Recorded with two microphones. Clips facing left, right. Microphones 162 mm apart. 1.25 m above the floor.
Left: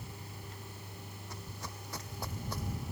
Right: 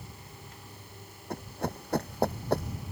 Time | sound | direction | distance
1.3 | running footsteps | 60° right (ahead or behind) | ?